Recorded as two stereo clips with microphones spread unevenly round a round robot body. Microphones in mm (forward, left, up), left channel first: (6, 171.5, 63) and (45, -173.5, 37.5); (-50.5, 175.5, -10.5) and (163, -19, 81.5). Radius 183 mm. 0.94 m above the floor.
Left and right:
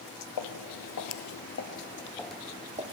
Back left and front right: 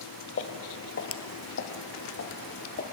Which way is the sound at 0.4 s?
80° left.